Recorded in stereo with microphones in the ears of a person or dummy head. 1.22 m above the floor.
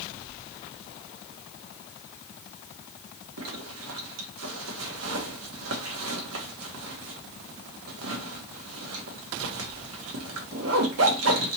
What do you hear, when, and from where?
3.4 s a zipper: 70° right (ahead or behind), 1.1 m